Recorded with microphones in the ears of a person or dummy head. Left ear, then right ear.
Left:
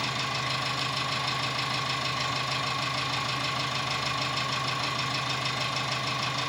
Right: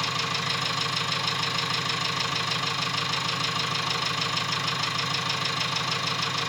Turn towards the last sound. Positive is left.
turn(degrees=-50)  # may be behind; listen again after turning